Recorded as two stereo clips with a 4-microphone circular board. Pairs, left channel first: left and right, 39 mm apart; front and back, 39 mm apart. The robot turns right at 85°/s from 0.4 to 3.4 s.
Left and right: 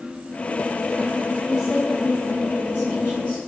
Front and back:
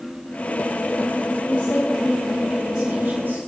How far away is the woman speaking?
About 3.5 m.